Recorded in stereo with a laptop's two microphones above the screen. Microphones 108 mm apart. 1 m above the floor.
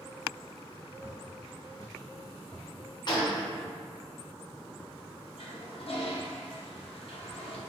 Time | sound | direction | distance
1.0 | footsteps | 10° left (ahead or behind) | 1.5 m
3.1 | a gunshot | 40° left (ahead or behind) | 1.0 m
5.4 | a toilet flushing | 60° left (ahead or behind) | 0.8 m